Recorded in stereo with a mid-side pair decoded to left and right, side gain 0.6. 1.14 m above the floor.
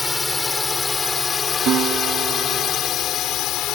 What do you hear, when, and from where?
0.0 s a drone: 15° left; by 3.8 s 65° left
1.7 s a guitar: 55° right